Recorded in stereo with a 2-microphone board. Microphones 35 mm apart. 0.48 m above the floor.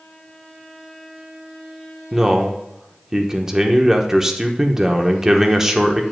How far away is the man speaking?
About 0.9 m.